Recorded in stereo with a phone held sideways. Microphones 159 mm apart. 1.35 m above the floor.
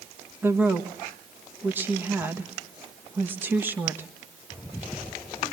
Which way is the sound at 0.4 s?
15° right (ahead or behind).